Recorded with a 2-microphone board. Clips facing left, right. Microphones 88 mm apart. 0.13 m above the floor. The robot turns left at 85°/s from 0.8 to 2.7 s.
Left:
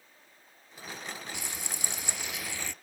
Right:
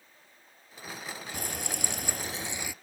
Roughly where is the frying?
Ahead right.